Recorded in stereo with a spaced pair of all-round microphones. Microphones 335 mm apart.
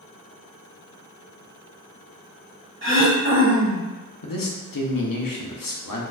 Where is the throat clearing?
35° right (ahead or behind), 0.7 m.